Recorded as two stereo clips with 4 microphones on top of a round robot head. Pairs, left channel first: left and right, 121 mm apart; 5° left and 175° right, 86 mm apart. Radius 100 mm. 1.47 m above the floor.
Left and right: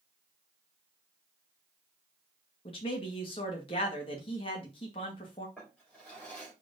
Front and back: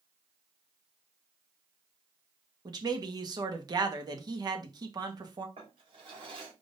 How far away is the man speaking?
About 1.8 m.